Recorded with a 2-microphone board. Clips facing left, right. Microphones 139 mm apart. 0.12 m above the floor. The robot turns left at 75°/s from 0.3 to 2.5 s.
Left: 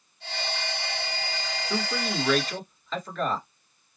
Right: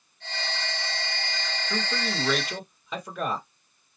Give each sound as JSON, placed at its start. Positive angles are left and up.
{"t": 1.7, "sound": "a man speaking", "azimuth_deg": 40, "distance_m": 1.8}